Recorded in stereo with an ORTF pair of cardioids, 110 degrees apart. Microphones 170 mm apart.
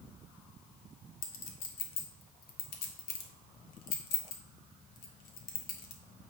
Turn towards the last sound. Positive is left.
turn(degrees=70)